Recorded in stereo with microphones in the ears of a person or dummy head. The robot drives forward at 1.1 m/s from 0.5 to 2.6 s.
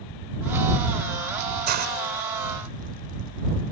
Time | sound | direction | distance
1.7 | a hiss | 55° right (ahead or behind) | ?